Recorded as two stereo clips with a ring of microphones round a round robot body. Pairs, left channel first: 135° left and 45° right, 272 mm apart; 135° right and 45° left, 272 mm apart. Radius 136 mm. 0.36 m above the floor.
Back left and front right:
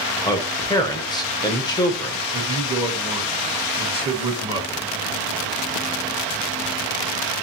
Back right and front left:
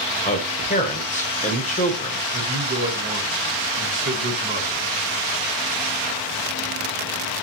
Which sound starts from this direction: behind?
A man speaking, at 0.2 s.